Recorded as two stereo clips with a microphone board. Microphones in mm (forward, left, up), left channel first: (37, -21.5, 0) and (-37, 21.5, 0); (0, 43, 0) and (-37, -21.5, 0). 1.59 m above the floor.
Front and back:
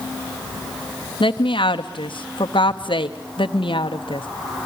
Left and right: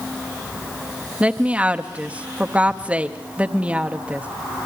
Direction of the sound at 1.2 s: 45° right.